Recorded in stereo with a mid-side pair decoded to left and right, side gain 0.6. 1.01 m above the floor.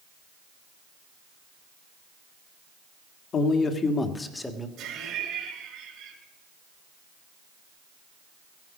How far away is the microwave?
No microwave in this recording.